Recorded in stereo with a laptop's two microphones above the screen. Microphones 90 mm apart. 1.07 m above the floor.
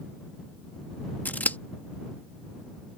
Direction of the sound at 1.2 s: 20° left (ahead or behind).